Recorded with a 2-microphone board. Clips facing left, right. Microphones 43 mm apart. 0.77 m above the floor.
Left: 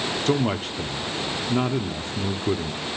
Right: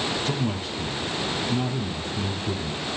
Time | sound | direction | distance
0.3 | a man speaking | 55° left (ahead or behind) | 1.3 m